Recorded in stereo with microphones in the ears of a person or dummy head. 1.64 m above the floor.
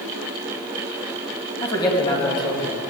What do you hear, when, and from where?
1.6 s a man speaking: 30° left (ahead or behind), 2.5 m